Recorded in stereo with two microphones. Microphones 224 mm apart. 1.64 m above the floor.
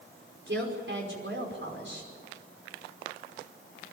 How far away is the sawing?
I don't hear sawing.